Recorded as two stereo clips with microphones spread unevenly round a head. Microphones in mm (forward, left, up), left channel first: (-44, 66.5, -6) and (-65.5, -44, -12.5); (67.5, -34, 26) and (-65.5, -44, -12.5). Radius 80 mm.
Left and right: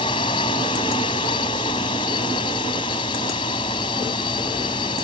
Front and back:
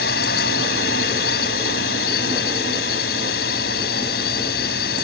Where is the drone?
15° left.